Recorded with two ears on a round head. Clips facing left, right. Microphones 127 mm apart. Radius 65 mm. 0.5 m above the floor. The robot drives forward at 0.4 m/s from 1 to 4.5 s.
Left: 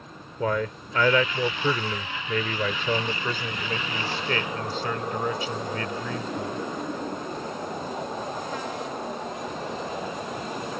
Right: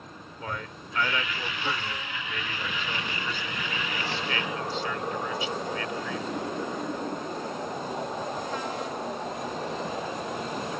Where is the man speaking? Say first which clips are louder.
Left 11 dB; 60° left (ahead or behind); by 6.6 s 40° left (ahead or behind).